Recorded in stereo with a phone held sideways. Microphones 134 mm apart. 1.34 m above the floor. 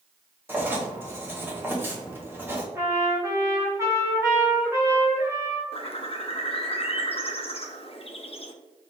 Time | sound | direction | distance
0.5 | writing | 15° right (ahead or behind) | 1.2 m
2.8 | a trumpet | 20° right (ahead or behind) | 1.5 m
5.7 | a bird | 45° left (ahead or behind) | 0.6 m